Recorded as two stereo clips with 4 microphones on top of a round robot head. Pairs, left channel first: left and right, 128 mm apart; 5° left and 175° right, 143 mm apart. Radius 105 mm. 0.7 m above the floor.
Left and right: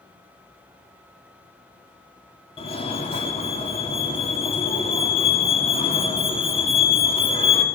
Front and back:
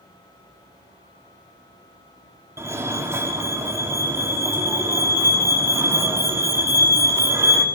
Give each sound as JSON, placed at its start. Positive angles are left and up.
{"t": 2.6, "sound": "a fire alarm", "azimuth_deg": 120, "distance_m": 2.5}